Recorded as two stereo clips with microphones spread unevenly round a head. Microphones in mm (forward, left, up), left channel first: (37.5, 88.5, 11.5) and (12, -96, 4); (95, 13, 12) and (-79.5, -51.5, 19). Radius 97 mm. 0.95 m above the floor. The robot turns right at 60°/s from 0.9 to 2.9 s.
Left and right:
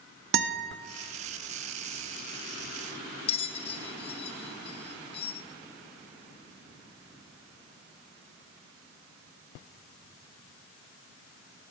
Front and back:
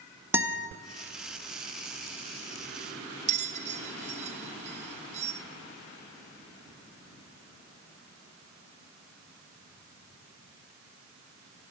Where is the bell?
145° left, 0.6 m.